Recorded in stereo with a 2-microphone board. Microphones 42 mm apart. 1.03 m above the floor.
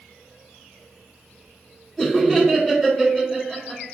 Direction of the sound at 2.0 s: Centre (ahead or behind).